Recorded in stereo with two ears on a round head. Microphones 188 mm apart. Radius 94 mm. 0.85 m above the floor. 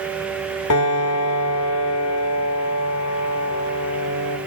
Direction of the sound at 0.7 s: 85° left.